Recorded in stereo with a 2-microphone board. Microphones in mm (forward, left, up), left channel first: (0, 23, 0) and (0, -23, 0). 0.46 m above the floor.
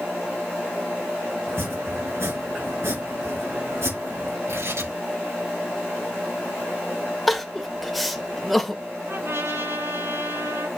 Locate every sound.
1.5 s chopping: 70° right (ahead or behind), 3.5 m
4.5 s tearing paper: 80° right, 4.5 m
7.3 s crying: centre (ahead or behind), 0.7 m
9.1 s a trumpet: 70° right (ahead or behind), 5 m